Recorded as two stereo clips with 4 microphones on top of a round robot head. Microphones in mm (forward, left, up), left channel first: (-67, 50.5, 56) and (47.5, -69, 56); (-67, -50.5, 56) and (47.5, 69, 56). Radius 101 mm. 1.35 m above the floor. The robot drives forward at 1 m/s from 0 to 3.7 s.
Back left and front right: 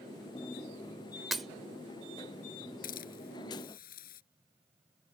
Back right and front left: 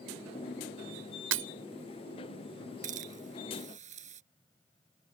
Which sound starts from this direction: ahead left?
Breaking glass, at 1.3 s.